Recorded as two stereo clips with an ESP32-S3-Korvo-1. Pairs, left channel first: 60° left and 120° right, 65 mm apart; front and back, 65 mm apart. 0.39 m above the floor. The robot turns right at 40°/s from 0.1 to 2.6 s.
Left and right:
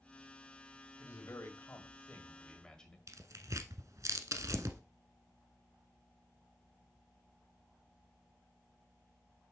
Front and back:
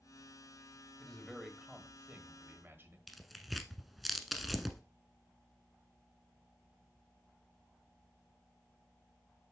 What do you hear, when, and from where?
1.0 s a man speaking: 70° left, 1.6 m; by 3.0 s 135° left, 1.6 m
3.1 s tearing paper: 90° right, 0.8 m